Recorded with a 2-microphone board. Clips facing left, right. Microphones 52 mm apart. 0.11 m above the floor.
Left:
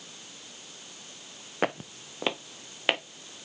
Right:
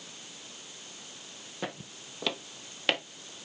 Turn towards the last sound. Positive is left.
turn(degrees=20)  # may be behind; listen again after turning